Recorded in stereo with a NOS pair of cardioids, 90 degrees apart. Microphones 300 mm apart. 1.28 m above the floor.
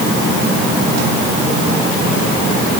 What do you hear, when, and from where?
Only background noise.